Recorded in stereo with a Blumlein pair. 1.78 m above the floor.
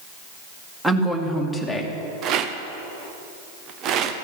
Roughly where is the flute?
No flute in this recording.